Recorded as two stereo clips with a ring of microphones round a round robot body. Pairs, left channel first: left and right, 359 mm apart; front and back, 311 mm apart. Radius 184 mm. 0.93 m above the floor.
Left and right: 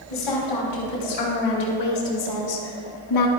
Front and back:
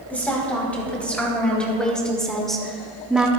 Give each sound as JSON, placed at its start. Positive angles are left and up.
{"t": 0.1, "sound": "a woman speaking", "azimuth_deg": 85, "distance_m": 4.0}